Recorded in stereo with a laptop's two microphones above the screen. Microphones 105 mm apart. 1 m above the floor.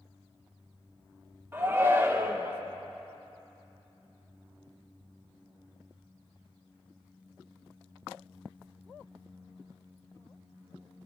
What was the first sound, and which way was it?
A shout, 20° right (ahead or behind).